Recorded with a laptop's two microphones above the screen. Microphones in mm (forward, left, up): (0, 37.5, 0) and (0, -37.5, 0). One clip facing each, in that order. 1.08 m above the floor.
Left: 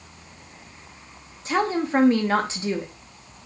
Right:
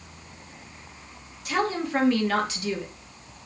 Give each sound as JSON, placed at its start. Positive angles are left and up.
{"t": 1.4, "sound": "a woman speaking", "side_deg": 25, "distance_m": 1.2}